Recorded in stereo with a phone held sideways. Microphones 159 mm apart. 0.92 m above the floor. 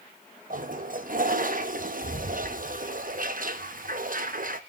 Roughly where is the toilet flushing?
Right.